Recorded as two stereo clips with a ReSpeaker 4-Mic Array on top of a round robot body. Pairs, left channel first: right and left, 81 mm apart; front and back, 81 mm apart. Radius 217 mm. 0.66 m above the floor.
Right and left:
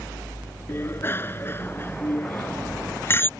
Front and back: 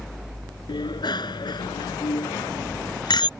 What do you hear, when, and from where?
0.7 s a bicycle bell: 30° right